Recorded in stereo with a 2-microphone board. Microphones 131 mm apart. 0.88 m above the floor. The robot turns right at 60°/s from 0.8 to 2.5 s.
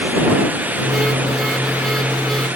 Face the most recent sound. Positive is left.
No sound to turn to.